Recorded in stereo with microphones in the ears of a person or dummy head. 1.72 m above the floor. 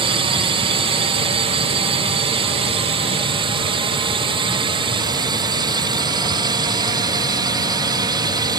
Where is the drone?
25° right (ahead or behind); by 8.6 s 20° right (ahead or behind).